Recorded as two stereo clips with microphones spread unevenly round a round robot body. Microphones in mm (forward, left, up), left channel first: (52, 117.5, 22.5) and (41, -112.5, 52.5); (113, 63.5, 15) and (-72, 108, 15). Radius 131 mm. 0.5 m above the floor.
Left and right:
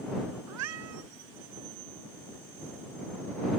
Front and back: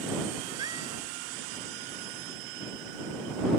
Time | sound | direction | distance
0.5 | a cat meowing | 120° right | ?